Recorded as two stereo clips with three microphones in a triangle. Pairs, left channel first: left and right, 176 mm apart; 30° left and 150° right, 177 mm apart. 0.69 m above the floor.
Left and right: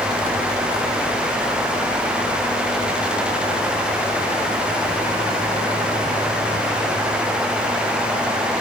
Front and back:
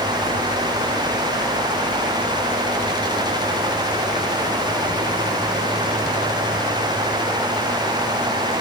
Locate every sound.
Only background noise.